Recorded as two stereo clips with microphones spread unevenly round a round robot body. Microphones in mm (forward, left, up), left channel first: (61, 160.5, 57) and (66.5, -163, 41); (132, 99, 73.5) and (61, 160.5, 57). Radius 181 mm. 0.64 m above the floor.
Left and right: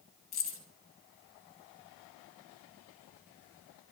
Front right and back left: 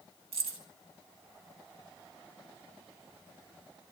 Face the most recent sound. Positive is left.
turn(degrees=155)